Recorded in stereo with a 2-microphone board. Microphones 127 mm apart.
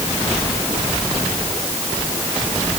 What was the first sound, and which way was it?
Only background noise.